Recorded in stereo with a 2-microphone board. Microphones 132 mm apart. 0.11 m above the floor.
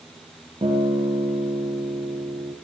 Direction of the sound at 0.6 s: 45° right (ahead or behind).